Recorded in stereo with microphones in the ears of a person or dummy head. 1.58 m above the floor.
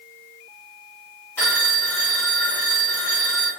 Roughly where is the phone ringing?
Centre.